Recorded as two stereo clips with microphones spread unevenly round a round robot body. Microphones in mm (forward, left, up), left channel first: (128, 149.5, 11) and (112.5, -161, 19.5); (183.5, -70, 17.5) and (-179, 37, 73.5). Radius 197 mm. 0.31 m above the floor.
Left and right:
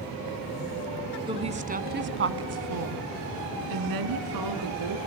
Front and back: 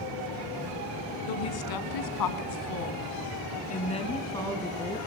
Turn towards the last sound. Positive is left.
turn(degrees=-105)